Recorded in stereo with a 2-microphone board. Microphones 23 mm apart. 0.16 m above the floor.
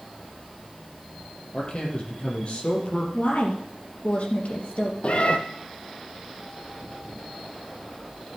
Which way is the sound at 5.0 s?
55° left (ahead or behind).